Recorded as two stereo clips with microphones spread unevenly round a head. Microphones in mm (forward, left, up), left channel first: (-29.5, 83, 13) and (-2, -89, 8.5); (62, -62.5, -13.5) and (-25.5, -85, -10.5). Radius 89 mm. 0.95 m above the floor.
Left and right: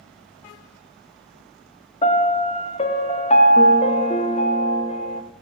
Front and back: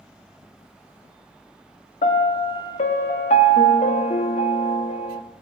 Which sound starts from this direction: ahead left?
A piano, at 2.0 s.